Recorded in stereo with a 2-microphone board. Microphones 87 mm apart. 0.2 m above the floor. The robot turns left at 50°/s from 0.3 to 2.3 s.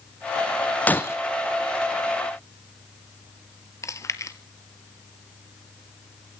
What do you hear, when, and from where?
0.9 s breaking glass: 20° left (ahead or behind), 0.9 m; by 1.2 s 35° left (ahead or behind), 0.9 m
3.8 s chewing: 35° left (ahead or behind), 1.2 m